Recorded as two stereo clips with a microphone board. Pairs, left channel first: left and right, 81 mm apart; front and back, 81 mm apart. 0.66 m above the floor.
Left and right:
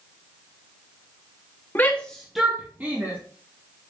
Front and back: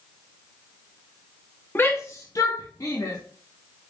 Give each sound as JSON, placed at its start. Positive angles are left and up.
{"t": 1.8, "sound": "a shout", "azimuth_deg": 40, "distance_m": 0.7}